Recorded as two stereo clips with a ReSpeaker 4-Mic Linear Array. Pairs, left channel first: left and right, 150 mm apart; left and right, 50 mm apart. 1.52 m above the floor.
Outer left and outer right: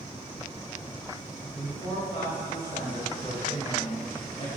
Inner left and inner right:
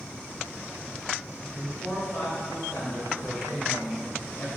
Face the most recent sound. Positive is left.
turn(degrees=45)  # may be behind; listen again after turning